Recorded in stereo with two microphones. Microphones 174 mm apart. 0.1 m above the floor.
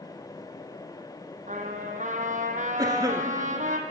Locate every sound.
1.5 s a trumpet: 50° right (ahead or behind), 1.0 m
2.8 s a cough: 20° right (ahead or behind), 1.2 m